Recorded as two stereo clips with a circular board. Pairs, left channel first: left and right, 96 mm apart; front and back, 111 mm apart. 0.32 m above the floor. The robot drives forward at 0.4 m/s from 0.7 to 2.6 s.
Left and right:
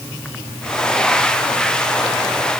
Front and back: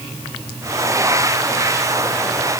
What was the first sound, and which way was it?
Only background noise.